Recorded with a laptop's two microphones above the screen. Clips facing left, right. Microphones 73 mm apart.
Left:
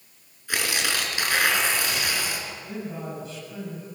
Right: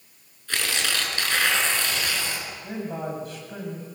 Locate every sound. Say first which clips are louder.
0.5 s tearing paper: left 1 dB; 10° left (ahead or behind), 8 m
2.6 s a man speaking: right 6 dB; 55° right (ahead or behind), 8 m